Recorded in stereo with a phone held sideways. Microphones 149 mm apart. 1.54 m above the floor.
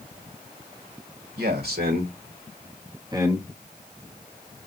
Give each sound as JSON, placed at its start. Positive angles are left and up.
{"t": 1.4, "sound": "a man speaking", "side_deg": -85, "distance_m": 1.5}